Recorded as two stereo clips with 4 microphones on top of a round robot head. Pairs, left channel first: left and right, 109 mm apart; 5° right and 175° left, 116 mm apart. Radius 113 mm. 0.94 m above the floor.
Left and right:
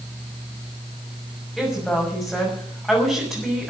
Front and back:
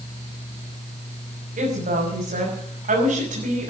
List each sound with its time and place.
1.6 s a woman speaking: 175° left, 6 m